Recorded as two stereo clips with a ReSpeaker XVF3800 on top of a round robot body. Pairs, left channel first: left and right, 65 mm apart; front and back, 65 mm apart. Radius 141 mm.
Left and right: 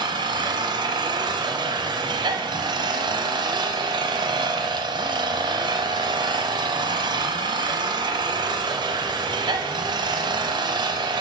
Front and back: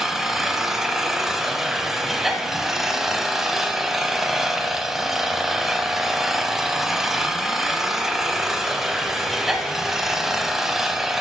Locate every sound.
0.0 s an engine running: 95° right, 0.8 m